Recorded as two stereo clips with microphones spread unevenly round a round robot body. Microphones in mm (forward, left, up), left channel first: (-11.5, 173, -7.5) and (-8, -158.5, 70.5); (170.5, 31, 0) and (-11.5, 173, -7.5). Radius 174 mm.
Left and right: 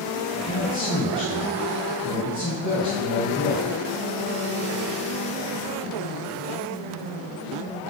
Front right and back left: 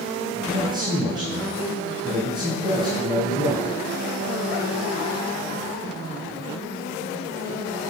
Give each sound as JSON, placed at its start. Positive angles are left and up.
{"t": 0.3, "sound": "a man speaking", "azimuth_deg": 75, "distance_m": 2.5}